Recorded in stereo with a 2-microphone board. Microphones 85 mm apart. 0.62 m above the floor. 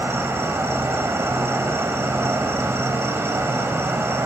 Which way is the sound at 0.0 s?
30° right (ahead or behind).